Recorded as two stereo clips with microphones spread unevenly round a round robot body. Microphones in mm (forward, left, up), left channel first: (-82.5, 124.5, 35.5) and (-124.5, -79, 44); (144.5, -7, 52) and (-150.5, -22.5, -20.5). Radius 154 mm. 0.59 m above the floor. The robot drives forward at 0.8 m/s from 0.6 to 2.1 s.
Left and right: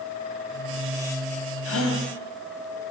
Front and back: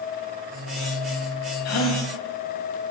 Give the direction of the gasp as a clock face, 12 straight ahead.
10 o'clock.